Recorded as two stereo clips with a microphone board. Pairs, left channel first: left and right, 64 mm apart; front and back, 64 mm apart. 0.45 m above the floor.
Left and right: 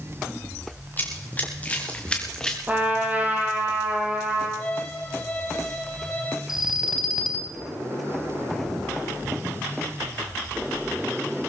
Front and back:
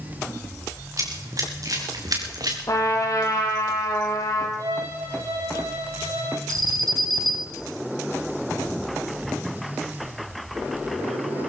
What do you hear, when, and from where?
1.0 s running footsteps: 150° left, 5.5 m; by 2.6 s 170° left, 3.5 m
2.7 s a trumpet: 30° right, 4 m
4.6 s a violin: 160° left, 9 m
6.5 s an alarm: 170° right, 3.5 m